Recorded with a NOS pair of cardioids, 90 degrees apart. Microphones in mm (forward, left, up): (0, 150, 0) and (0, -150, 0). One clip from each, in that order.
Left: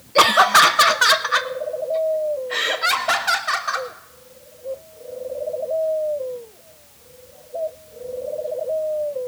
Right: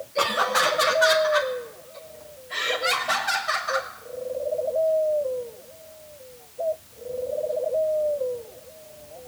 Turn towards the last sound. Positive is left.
turn(degrees=50)